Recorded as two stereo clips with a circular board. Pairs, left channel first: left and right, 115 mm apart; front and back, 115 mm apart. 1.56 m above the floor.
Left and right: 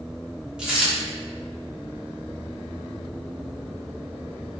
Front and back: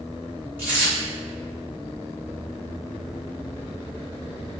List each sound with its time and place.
0.6 s a dropped coin: 150° right, 1.0 m